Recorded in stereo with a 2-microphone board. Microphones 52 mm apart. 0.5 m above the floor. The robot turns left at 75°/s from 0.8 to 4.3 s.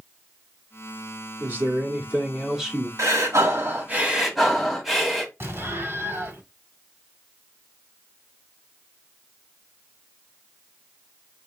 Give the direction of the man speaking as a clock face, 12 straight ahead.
2 o'clock.